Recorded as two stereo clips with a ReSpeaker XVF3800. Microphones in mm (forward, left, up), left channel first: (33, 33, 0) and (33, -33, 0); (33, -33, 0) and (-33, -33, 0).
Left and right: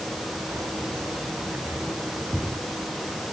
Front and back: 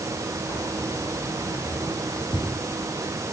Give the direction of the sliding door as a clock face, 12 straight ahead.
I don't hear a sliding door.